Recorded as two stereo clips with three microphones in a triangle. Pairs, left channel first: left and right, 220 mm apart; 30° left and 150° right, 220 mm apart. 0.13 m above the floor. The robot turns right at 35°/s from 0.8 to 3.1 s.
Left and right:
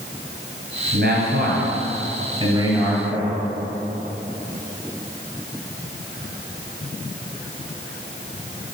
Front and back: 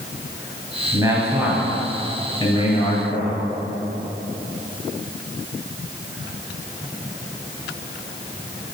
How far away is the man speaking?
About 2.5 m.